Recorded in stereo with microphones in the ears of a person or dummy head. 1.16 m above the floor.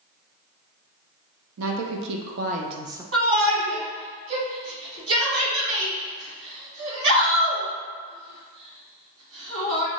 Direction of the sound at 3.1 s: 85° right.